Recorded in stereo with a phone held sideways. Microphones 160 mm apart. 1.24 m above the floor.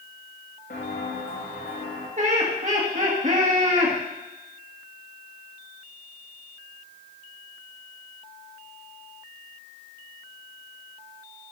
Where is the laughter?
45° right (ahead or behind), 2.0 m.